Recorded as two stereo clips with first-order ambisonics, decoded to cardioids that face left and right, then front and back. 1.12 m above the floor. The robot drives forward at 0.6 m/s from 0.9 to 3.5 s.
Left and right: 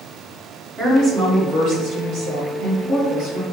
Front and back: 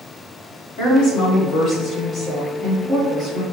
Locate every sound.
0.8 s a woman speaking: 35° right, 1.4 m; by 3.4 s 125° right, 1.0 m